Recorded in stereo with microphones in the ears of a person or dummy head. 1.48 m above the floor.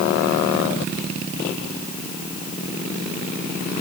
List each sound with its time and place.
Only background noise.